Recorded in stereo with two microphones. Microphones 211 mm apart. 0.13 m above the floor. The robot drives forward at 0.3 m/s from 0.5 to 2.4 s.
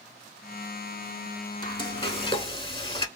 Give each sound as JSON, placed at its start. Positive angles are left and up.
{"t": 1.6, "sound": "frying", "side_deg": 25, "distance_m": 0.6}